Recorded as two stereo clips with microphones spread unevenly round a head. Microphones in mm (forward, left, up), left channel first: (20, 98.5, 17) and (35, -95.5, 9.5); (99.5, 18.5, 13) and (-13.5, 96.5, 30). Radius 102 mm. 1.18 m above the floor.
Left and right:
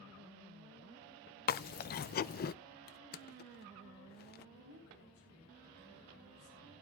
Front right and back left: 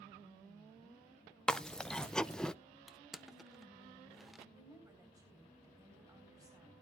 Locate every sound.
1.5 s chewing: 50° left, 0.5 m
2.9 s crushing: 60° left, 0.5 m
4.5 s a woman speaking: 80° left, 4 m